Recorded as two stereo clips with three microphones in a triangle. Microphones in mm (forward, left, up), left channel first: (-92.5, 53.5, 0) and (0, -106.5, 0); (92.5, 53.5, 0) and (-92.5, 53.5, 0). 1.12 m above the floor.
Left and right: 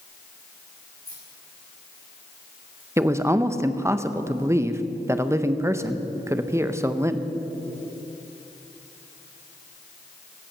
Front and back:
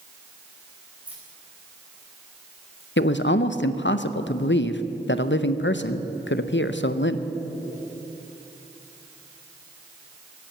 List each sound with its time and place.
1.1 s keys jangling: 95° right, 4 m; by 2.9 s 125° right, 3.5 m
3.0 s a man speaking: 15° left, 0.7 m